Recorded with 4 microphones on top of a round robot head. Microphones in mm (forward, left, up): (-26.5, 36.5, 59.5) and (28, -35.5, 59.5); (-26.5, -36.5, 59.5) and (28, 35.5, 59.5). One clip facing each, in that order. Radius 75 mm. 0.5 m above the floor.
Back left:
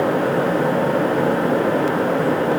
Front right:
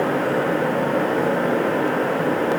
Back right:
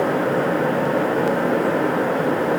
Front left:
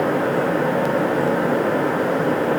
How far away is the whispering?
I don't hear whispering.